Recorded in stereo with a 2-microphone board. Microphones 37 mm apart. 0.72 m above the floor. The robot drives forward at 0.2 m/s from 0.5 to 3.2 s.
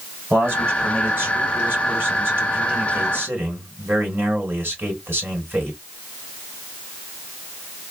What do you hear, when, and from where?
0.3 s a man speaking: 75° right (ahead or behind), 2.5 m; by 5.8 s 65° right (ahead or behind), 2.5 m